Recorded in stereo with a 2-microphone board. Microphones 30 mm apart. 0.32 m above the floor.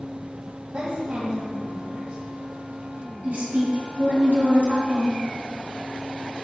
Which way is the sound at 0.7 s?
45° right (ahead or behind).